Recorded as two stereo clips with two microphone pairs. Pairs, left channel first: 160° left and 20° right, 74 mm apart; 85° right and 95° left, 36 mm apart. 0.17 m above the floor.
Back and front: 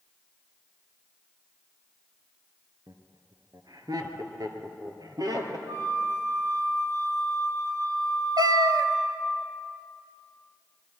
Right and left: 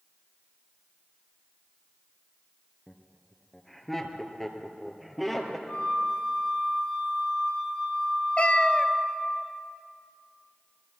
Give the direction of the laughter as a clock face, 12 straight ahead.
12 o'clock.